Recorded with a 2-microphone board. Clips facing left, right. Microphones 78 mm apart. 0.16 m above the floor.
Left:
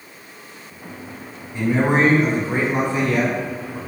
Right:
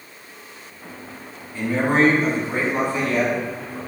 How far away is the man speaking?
About 1.1 m.